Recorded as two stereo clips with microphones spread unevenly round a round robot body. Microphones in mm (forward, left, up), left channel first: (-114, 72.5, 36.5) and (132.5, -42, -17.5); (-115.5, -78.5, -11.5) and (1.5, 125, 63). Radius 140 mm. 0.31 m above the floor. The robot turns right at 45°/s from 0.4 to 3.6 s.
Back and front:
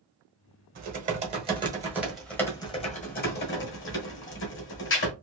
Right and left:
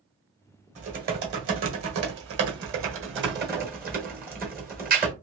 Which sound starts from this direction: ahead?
Typing on a keyboard, at 0.8 s.